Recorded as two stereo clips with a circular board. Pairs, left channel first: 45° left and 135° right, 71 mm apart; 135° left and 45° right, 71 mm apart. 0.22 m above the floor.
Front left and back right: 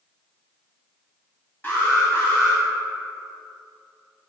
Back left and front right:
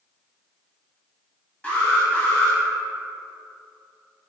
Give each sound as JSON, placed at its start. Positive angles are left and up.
{"t": 1.6, "sound": "an alarm", "azimuth_deg": 80, "distance_m": 1.5}